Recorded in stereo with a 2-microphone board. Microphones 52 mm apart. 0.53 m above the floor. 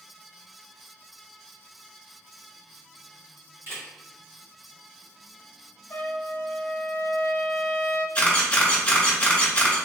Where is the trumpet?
55° left (ahead or behind), 0.5 m.